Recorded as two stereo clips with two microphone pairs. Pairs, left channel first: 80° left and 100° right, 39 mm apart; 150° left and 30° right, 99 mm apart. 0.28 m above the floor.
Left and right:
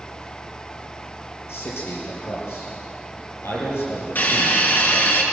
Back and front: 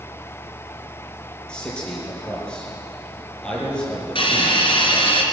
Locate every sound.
1.5 s a man speaking: 70° left, 8.5 m
4.2 s a hiss: 120° left, 4 m